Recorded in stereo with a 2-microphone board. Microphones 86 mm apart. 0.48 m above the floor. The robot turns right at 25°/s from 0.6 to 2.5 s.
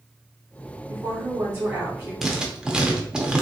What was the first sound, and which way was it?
A woman speaking, 65° right.